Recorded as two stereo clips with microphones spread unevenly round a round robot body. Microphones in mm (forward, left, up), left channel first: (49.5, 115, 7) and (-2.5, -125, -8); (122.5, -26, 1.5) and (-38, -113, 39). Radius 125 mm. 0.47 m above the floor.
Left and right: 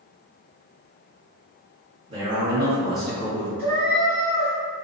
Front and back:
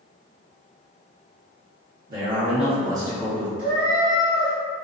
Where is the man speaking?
145° right, 1.0 m; by 3.5 s 40° left, 0.8 m.